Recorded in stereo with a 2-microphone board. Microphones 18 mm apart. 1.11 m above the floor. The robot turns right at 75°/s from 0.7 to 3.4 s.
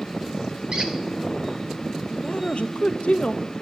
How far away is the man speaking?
About 0.6 m.